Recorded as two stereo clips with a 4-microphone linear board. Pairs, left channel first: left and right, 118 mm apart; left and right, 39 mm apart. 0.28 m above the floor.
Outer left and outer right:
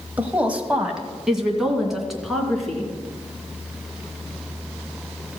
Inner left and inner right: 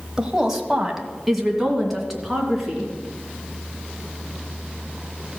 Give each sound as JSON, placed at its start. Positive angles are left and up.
{"t": 0.2, "sound": "a woman speaking", "side_deg": -15, "distance_m": 1.1}